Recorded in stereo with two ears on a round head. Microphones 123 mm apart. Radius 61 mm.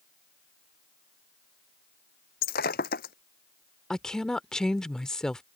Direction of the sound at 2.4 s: 80° left.